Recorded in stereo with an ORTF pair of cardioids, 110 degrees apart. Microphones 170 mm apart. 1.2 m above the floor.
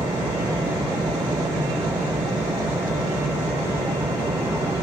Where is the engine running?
15° right.